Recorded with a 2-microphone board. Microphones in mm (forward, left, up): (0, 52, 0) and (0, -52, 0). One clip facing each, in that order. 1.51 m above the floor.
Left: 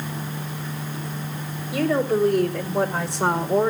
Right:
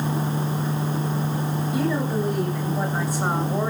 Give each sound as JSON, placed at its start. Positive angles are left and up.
{"t": 1.7, "sound": "a woman speaking", "side_deg": 85, "distance_m": 6.5}